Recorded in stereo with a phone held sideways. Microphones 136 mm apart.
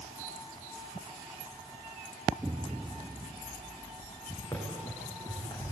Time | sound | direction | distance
2.4 | an explosion | 10° right (ahead or behind) | 0.7 m
4.5 | running footsteps | 20° left (ahead or behind) | 7.5 m